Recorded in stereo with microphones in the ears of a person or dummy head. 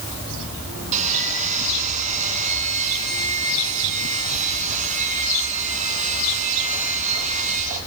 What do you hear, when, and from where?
0.9 s sawing: 40° right (ahead or behind), 5.5 m